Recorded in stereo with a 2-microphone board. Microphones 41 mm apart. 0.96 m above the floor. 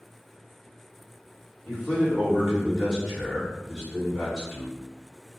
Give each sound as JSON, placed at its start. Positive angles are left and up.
{"t": 1.6, "sound": "a man speaking", "side_deg": 30, "distance_m": 1.6}